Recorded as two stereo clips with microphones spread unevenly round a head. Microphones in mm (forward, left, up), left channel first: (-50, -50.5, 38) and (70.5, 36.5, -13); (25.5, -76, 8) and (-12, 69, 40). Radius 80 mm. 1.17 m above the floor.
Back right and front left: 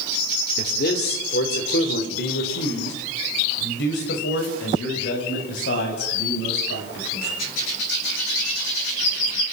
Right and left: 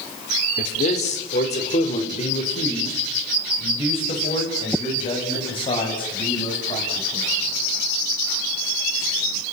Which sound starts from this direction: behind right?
A man speaking, at 0.6 s.